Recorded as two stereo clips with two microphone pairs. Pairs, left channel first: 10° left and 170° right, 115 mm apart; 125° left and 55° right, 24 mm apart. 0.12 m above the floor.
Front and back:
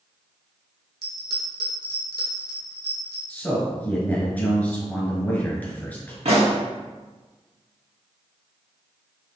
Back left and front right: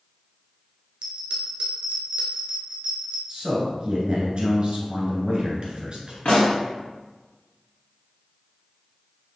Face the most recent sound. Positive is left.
turn(degrees=165)